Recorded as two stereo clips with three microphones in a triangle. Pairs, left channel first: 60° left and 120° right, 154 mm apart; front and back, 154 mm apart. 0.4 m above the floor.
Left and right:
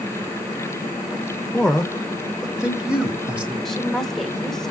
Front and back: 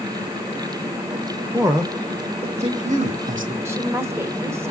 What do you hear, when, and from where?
1.5 s a man speaking: 135° left, 0.8 m; by 3.5 s 160° left, 1.8 m
3.6 s a woman speaking: 140° left, 0.9 m